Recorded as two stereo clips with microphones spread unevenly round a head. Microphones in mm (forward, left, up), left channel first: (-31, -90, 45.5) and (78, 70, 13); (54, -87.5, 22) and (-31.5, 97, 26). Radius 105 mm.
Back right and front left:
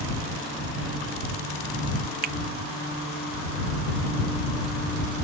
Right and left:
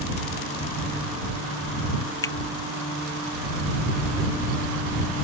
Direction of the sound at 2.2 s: 10° left.